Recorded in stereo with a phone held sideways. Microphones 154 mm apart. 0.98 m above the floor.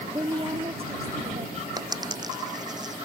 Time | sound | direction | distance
0.1 | a woman speaking | 20° right (ahead or behind) | ?
1.8 | a dropped coin | 25° right (ahead or behind) | ?